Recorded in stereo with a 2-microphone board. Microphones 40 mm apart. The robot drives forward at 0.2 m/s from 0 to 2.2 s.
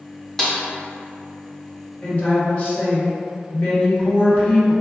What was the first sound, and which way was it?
A snare drum, 15° left (ahead or behind).